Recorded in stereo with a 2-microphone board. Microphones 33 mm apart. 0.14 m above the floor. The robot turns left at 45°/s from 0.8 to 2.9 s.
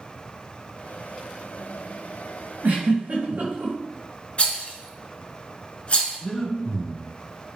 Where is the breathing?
25° left (ahead or behind), 0.7 m.